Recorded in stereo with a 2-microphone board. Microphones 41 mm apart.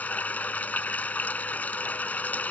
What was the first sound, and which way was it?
Running water, 40° left (ahead or behind).